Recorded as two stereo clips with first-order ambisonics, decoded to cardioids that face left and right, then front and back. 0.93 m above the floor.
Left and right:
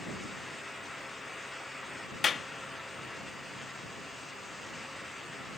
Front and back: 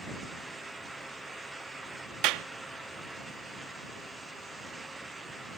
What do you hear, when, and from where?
2.2 s a clap: 160° left